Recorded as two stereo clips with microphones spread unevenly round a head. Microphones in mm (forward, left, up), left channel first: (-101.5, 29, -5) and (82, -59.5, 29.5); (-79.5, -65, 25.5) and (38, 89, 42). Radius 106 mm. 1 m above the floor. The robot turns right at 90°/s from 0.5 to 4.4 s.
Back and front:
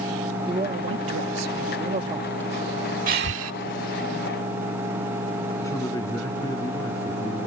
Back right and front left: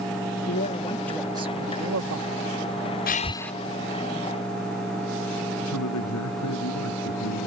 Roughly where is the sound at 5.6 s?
Behind right.